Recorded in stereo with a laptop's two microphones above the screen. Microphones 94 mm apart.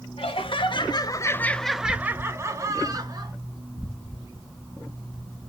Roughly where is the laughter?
Left.